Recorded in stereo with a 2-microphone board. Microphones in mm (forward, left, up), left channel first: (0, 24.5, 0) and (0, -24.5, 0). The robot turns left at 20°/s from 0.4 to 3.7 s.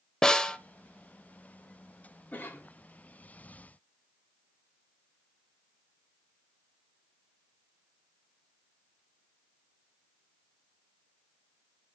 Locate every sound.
0.2 s a snare drum: 15° left (ahead or behind), 0.7 m; by 0.6 s 20° left (ahead or behind), 0.7 m
2.3 s a cough: 40° left (ahead or behind), 1.4 m